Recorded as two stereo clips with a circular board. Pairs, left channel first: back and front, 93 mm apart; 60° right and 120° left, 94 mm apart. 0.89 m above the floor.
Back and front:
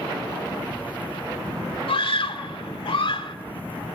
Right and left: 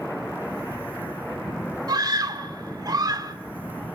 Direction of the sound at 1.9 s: 165° left.